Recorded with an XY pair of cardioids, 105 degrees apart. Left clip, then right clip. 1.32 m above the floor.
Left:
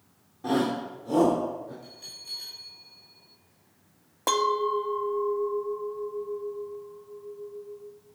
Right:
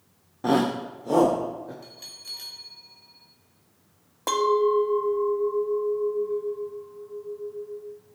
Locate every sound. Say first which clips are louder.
0.4 s a shout: right 4 dB; 55° right, 0.9 m; by 1.7 s 65° right, 2 m
1.8 s a bell: right 1 dB; 65° right, 3 m
4.3 s a clink: right 3 dB; 20° left, 0.6 m